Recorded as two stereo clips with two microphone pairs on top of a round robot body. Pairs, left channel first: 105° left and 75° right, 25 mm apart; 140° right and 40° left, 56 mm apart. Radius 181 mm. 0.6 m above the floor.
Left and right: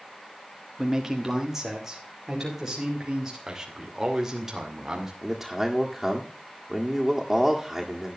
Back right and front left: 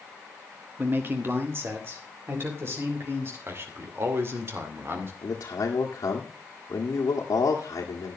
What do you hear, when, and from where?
0.8 s a man speaking: straight ahead, 1.6 m
3.5 s a man speaking: straight ahead, 2.5 m
5.2 s a man speaking: 160° right, 1.9 m